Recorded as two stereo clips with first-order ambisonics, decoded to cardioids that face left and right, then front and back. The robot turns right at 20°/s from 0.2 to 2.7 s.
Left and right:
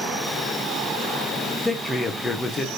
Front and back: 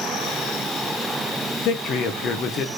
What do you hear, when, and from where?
1.6 s a man speaking: 10° left, 0.7 m; by 2.7 s 30° left, 0.7 m